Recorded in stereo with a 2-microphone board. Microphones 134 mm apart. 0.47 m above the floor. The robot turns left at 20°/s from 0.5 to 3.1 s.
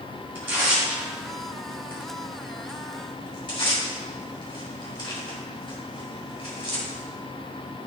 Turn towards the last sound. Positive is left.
turn(degrees=35)  # may be behind; listen again after turning